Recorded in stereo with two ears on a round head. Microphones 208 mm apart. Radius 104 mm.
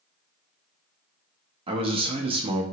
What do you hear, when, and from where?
1.7 s a man speaking: 25° right (ahead or behind), 0.6 m